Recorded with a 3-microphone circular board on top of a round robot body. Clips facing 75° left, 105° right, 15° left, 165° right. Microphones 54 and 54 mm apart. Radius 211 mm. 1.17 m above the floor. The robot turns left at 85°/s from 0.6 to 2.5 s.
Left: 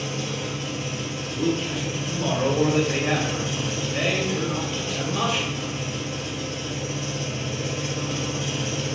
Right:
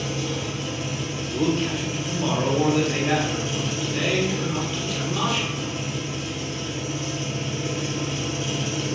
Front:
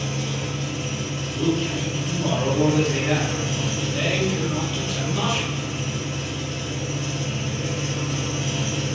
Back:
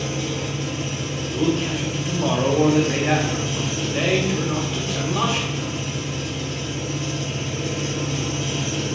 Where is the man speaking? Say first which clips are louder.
Right 2 dB, back 2 dB; 115° right, 0.8 m; by 5.7 s 140° left, 0.8 m.